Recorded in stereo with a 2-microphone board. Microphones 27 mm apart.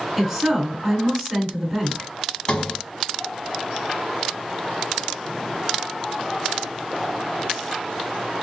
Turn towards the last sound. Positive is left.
turn(degrees=35)  # may be behind; listen again after turning